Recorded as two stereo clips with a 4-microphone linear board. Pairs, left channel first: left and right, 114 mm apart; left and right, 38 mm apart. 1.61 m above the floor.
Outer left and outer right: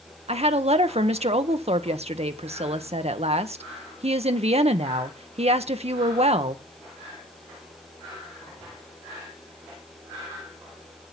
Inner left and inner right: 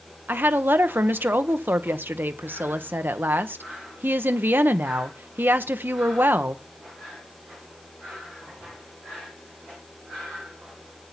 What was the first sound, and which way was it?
A woman speaking, 65° right (ahead or behind).